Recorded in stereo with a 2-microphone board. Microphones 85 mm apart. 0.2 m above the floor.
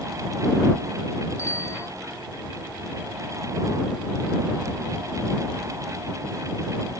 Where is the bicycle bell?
35° left (ahead or behind).